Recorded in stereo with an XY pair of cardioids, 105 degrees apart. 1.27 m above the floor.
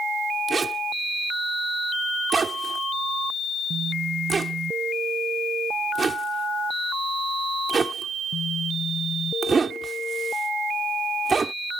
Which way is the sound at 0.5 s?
30° right.